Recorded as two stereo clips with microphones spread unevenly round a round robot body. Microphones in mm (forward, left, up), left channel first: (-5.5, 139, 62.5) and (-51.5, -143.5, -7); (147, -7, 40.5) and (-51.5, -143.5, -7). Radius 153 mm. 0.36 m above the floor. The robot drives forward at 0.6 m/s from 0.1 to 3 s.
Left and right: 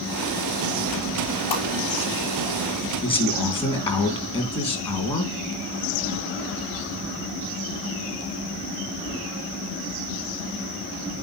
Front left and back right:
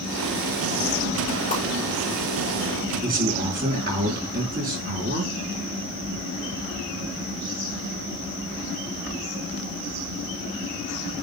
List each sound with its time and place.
1.5 s a whoosh: 100° left, 3.5 m
3.0 s a man speaking: 155° left, 3.5 m